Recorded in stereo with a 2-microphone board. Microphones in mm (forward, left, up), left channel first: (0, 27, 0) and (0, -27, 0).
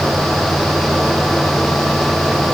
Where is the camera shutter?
I don't hear a camera shutter.